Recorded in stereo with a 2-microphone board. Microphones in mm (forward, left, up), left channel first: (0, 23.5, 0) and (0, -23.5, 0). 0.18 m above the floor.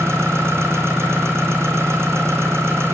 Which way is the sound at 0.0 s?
65° right (ahead or behind).